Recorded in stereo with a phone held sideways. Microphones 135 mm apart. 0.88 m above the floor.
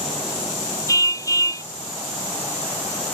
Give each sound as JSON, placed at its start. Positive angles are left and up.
{"t": 0.9, "sound": "a car horn", "side_deg": 25}